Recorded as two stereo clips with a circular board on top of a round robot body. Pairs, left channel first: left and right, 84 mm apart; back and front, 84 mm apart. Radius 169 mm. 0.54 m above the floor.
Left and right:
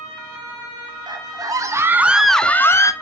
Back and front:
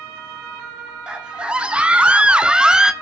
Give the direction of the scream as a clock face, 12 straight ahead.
3 o'clock.